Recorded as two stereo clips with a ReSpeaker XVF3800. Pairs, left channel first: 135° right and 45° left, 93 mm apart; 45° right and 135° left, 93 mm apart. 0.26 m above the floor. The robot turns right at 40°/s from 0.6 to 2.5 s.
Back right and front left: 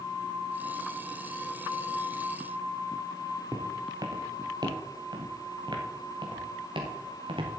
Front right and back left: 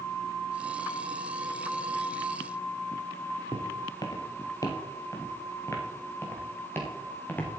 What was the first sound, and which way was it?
Footsteps, 10° right.